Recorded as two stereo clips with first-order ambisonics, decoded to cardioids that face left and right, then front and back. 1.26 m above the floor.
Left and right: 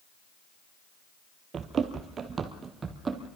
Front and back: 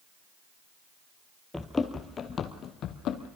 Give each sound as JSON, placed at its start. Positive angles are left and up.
{"t": 1.5, "sound": "running footsteps", "azimuth_deg": -80, "distance_m": 1.3}